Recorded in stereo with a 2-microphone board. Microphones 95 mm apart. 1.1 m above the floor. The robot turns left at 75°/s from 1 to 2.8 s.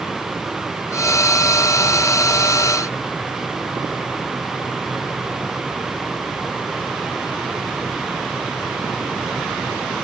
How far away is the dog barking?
No dog barking in this recording.